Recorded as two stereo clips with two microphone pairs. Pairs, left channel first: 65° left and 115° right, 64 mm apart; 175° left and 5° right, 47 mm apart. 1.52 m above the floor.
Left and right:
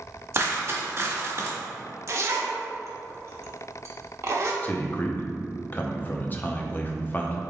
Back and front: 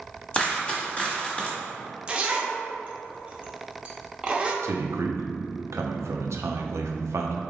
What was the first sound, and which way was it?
A dropped coin, 130° right.